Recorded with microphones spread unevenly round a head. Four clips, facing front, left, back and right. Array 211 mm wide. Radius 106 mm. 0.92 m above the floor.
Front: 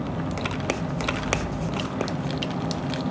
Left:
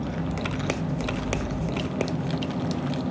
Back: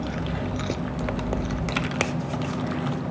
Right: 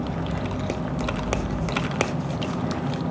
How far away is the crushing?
I don't hear crushing.